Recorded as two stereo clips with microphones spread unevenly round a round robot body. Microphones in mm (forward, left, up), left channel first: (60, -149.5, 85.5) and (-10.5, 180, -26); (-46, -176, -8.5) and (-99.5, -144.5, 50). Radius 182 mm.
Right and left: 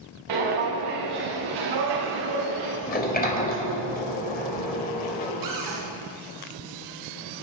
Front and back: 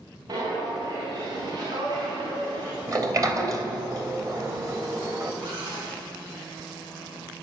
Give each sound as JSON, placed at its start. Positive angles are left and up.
{"t": 0.3, "sound": "footsteps", "azimuth_deg": 120, "distance_m": 7.0}
{"t": 2.9, "sound": "a sliding door", "azimuth_deg": -150, "distance_m": 3.0}
{"t": 5.4, "sound": "a cupboard door", "azimuth_deg": 120, "distance_m": 6.0}